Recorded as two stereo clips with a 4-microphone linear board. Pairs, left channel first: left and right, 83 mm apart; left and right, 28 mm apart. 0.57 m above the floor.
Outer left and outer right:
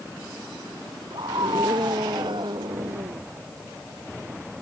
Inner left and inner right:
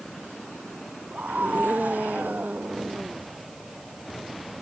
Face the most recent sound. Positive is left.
turn(degrees=-70)  # may be behind; listen again after turning